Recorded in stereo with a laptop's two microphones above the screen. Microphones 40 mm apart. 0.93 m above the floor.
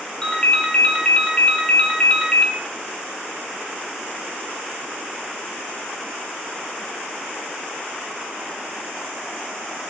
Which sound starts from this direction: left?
A ringtone, at 0.2 s.